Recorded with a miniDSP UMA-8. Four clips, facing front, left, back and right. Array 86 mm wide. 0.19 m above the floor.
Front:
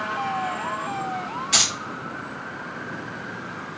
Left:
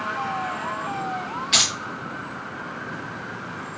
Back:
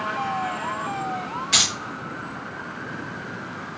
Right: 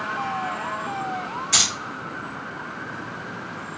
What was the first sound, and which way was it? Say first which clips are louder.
Keys jangling: left 2 dB, even; 100° left.